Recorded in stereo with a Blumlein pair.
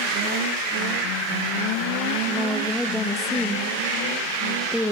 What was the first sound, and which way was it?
A woman speaking, 5° left.